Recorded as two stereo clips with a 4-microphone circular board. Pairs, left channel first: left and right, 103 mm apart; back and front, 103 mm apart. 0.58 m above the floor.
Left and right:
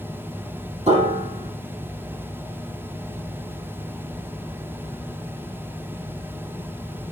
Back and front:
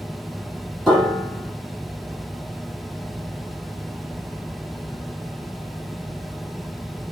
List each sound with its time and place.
0.9 s a piano: 90° right, 7.5 m